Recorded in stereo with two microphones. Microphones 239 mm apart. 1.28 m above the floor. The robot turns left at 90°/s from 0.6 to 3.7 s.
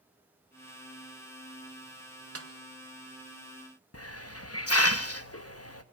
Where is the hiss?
75° left (ahead or behind), 1.2 m.